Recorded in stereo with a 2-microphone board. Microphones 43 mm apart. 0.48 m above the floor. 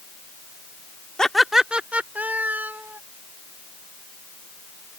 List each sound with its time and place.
1.2 s laughter: 15° left (ahead or behind); by 3.0 s 55° right (ahead or behind)